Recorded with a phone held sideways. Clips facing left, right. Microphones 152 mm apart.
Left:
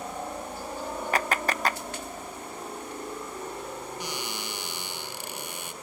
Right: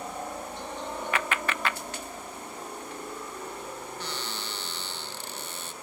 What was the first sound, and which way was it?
A helicopter, 5° left (ahead or behind).